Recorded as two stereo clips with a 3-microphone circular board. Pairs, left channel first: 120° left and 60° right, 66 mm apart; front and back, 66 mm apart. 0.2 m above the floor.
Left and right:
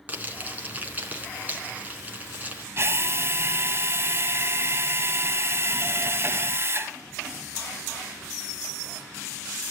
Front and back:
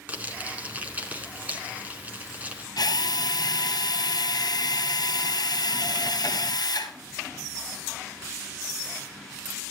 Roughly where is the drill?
Ahead.